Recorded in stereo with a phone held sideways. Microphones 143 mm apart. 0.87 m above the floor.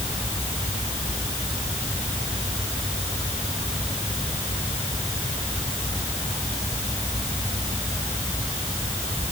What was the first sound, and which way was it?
Only background noise.